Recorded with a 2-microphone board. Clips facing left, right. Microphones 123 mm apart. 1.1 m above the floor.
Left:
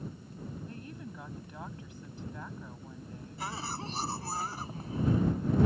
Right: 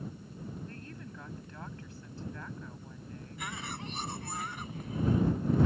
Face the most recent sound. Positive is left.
turn(degrees=35)  # may be behind; listen again after turning